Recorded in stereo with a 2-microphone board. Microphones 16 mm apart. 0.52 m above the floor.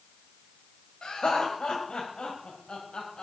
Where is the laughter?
70° left (ahead or behind), 2.5 m; by 3.2 s 65° left (ahead or behind), 3 m.